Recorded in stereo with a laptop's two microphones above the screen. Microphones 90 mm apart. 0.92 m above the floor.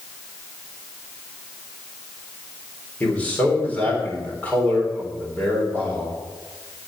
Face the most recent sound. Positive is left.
turn(degrees=20)  # may be behind; listen again after turning